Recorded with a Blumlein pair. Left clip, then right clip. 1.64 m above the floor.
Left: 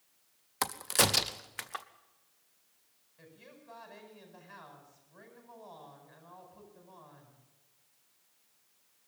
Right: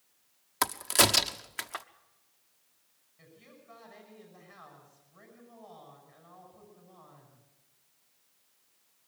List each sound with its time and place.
0.6 s a crack: 10° right, 0.8 m
3.2 s a woman speaking: 55° left, 10 m